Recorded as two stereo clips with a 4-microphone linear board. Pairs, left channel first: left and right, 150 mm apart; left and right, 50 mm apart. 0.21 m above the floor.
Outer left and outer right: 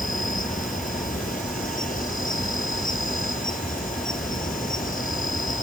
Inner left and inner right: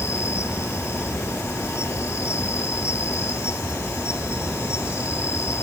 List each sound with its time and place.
0.0 s an insect: 60° left (ahead or behind)